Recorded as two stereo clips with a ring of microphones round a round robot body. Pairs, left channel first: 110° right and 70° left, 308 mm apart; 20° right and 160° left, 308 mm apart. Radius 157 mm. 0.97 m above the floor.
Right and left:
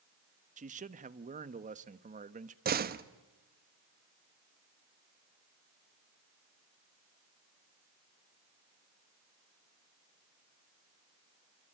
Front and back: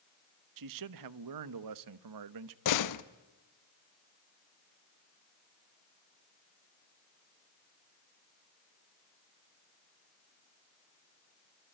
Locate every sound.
0.6 s a man speaking: 135° left, 1.1 m
2.6 s a door slam: 5° left, 1.1 m